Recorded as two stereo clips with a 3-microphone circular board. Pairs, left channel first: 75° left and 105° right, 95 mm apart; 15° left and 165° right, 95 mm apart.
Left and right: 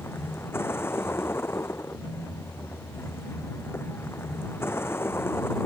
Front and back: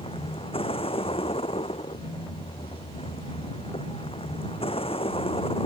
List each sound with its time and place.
0.0 s a vehicle: 10° left